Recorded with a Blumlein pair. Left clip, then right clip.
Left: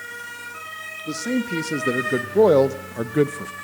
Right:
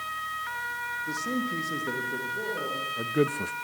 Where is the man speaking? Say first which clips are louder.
Left 4 dB; 70° left, 1.7 m; by 3.5 s 5° right, 0.6 m.